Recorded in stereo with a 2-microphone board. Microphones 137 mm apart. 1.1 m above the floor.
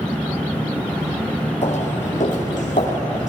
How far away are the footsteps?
About 2.5 m.